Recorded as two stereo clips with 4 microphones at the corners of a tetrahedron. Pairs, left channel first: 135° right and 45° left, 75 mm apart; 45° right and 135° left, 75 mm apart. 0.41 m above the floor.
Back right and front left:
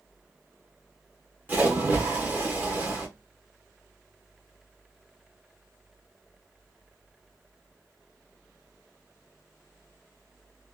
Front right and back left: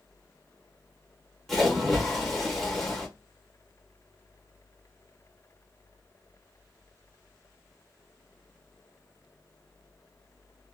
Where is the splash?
35° left, 0.9 m.